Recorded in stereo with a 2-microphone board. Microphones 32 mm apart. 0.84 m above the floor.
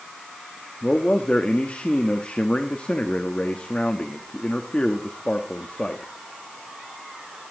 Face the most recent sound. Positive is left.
turn(degrees=35)  # may be behind; listen again after turning